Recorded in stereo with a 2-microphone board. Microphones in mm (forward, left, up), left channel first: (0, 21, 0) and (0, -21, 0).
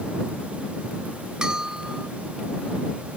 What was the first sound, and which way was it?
A bell, 20° right (ahead or behind).